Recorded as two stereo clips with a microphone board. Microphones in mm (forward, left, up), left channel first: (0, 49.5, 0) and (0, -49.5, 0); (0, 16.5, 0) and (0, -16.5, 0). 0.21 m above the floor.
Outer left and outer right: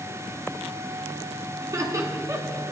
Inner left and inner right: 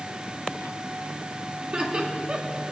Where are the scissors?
No scissors in this recording.